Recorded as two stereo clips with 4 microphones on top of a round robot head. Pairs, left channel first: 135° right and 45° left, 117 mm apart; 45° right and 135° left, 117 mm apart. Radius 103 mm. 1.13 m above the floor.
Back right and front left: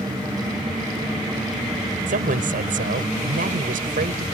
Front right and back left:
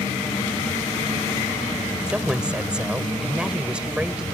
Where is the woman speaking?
50° left.